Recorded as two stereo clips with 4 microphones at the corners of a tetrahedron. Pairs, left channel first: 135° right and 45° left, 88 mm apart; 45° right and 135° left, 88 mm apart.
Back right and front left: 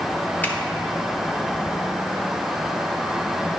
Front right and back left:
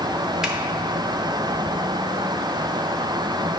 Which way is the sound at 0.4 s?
155° right.